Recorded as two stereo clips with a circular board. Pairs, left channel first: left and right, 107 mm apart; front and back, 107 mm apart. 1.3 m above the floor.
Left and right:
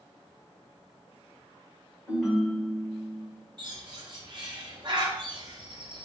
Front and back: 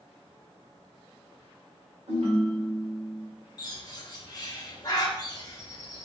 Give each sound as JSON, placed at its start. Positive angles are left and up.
{"t": 2.1, "sound": "a ringtone", "azimuth_deg": -175, "distance_m": 1.9}
{"t": 3.6, "sound": "a bird", "azimuth_deg": -50, "distance_m": 0.8}